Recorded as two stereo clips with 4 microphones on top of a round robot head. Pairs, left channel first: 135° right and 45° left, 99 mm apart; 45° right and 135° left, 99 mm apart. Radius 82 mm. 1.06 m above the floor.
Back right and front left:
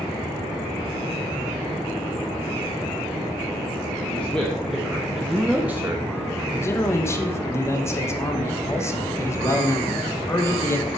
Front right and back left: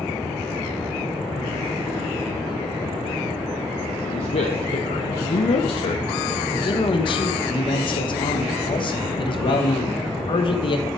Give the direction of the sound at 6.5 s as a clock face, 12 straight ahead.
2 o'clock.